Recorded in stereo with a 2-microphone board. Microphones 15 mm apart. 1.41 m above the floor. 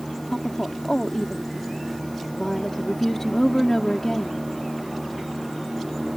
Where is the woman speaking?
25° left (ahead or behind).